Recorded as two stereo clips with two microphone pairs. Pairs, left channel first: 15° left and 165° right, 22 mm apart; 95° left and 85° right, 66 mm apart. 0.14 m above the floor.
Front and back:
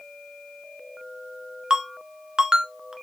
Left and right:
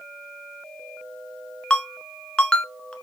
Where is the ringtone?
165° left, 1.1 m.